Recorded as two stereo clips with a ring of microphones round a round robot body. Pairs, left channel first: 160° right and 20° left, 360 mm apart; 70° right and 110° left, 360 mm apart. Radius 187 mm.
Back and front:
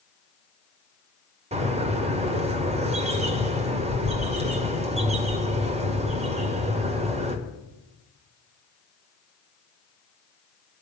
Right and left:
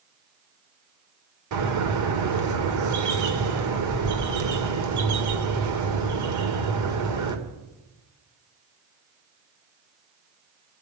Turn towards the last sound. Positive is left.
turn(degrees=90)